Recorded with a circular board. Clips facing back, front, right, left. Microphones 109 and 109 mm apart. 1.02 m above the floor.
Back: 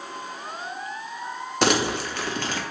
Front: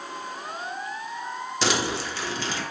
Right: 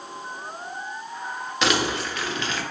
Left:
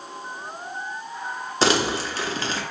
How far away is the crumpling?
About 0.6 m.